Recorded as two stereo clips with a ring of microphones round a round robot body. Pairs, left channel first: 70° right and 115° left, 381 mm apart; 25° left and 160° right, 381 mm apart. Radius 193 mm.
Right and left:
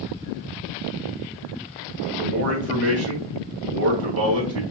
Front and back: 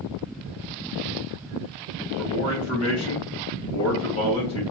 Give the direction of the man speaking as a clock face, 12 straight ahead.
10 o'clock.